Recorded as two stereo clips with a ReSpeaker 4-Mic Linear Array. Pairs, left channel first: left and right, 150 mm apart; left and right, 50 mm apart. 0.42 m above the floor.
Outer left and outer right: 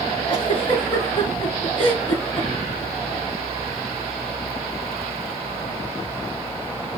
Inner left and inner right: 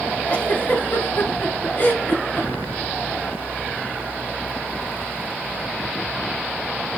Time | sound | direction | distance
0.3 | a giggle | 35° left (ahead or behind) | 4 m